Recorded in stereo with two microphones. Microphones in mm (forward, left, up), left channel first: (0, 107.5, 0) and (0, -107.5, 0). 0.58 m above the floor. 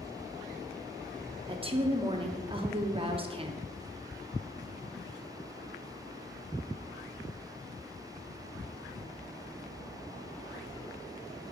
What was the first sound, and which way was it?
A woman speaking, 25° right (ahead or behind).